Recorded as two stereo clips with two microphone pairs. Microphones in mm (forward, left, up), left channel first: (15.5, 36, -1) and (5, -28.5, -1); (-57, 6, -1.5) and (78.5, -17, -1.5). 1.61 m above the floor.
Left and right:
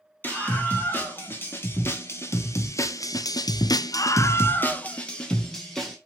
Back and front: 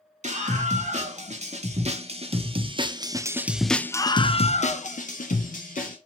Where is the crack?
I don't hear a crack.